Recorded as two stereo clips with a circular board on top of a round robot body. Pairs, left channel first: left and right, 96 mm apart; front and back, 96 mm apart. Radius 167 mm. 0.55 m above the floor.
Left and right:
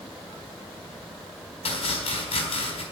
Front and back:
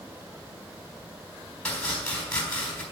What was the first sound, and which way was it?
Chopping, 80° left.